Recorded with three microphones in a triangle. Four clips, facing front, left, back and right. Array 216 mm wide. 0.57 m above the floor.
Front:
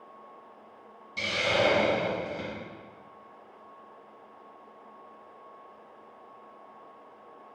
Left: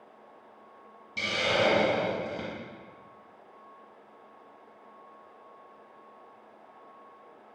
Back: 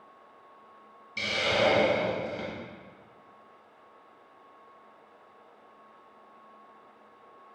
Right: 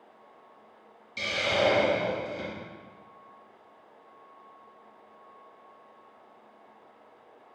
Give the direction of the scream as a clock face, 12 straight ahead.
No scream in this recording.